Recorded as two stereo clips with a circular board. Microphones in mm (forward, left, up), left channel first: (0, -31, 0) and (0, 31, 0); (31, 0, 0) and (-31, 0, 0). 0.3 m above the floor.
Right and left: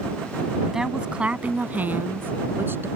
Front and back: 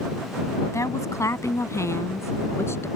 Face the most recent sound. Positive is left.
turn(degrees=45)